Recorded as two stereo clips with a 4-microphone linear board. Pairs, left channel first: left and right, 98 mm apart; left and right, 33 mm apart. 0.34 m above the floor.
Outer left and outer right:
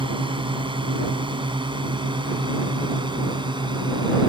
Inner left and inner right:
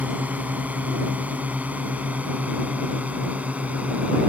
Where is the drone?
55° right (ahead or behind); by 4.3 s 50° right (ahead or behind).